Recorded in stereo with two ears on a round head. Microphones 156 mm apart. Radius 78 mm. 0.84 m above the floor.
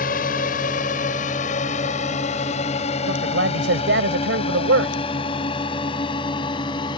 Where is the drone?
55° left (ahead or behind); by 7.0 s 25° left (ahead or behind).